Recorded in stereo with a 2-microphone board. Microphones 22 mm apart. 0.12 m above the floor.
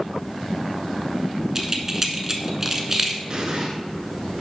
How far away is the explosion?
About 1.3 m.